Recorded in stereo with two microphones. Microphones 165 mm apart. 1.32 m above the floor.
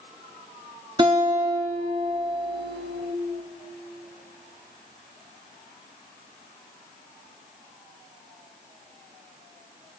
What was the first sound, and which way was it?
A guitar, 30° right (ahead or behind).